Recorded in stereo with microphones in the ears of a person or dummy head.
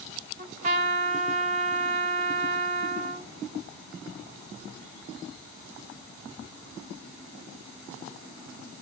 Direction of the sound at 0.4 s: 35° right (ahead or behind).